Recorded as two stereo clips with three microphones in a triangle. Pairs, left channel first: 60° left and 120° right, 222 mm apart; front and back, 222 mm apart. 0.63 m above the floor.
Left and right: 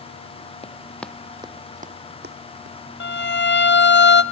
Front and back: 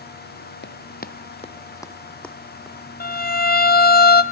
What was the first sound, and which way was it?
Running footsteps, 5° left.